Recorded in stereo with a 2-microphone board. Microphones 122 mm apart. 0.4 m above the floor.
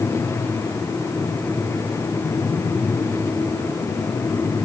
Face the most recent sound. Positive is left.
No sound to turn to.